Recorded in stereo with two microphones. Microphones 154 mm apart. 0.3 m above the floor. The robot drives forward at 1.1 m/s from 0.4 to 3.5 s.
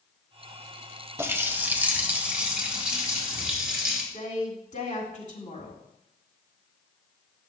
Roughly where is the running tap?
Centre.